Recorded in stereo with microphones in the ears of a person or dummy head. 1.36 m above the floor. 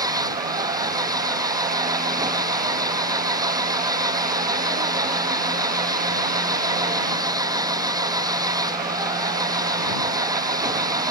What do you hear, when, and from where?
0.0 s an engine running: 15° right (ahead or behind)